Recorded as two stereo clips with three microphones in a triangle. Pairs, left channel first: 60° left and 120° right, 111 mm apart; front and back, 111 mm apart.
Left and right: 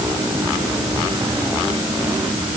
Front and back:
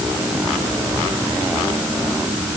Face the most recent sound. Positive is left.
No sound to turn to.